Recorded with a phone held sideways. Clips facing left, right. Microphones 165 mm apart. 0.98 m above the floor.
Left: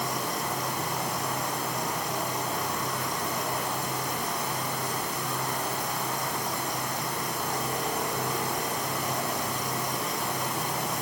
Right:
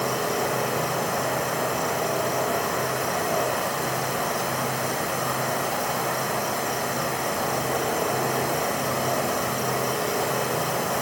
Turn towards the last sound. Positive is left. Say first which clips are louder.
# right 7 dB
turn(degrees=-65)  # may be behind; listen again after turning